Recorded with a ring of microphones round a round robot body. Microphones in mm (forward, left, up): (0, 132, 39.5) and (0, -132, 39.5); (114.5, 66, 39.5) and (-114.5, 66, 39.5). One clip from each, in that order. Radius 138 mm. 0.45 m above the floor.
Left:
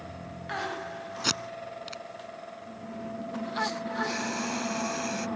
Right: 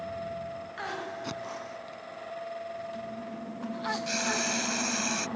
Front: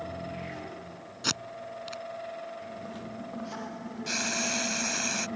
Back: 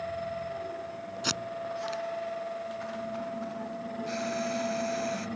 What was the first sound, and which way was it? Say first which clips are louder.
Tape being pulled: left 6 dB, even; 80° left.